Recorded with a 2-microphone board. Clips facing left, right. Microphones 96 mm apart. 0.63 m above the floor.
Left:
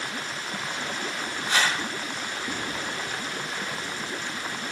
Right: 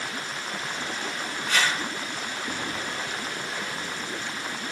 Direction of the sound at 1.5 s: 20° left (ahead or behind).